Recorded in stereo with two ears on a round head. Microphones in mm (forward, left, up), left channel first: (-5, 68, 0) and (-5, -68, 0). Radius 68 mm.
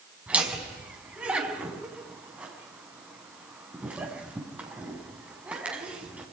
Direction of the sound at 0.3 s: 10° right (ahead or behind).